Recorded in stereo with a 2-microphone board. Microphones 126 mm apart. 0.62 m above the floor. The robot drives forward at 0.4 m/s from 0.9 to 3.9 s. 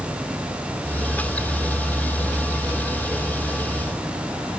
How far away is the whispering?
I don't hear whispering.